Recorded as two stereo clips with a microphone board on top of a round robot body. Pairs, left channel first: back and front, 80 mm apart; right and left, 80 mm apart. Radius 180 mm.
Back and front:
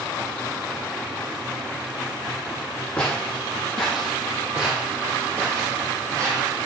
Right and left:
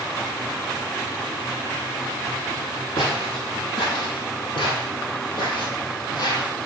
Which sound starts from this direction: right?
Footsteps, at 3.0 s.